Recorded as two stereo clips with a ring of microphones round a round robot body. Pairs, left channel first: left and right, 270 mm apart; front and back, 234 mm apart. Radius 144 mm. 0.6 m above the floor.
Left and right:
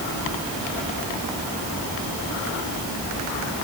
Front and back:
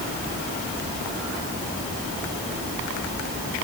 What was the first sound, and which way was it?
Only background noise.